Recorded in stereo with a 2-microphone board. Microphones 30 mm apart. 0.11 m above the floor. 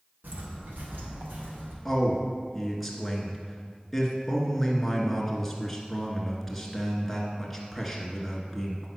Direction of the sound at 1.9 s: Centre (ahead or behind).